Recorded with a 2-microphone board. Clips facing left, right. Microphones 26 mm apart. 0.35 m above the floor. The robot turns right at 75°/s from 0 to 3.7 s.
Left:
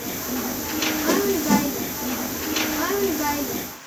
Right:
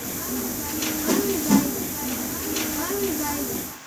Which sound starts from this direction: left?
A whoosh, at 1.1 s.